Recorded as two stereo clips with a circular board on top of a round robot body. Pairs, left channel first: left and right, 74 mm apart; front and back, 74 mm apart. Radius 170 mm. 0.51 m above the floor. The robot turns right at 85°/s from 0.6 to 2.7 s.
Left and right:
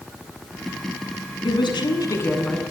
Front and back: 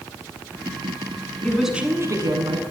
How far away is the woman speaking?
About 7.5 m.